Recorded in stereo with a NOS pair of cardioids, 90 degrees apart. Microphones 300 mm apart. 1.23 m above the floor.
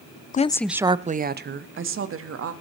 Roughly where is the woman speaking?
Ahead left.